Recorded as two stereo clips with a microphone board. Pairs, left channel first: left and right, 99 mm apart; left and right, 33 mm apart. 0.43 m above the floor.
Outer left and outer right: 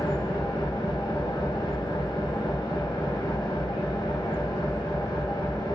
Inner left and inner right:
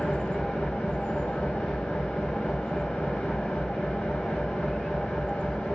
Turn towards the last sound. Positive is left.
turn(degrees=50)  # may be behind; listen again after turning